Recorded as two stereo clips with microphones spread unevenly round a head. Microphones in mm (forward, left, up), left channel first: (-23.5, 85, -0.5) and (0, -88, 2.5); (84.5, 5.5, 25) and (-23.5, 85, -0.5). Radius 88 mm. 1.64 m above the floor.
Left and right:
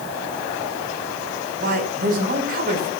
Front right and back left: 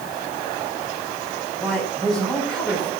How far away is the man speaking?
About 5.5 m.